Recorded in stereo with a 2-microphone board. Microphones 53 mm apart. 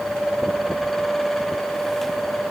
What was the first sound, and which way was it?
Only background noise.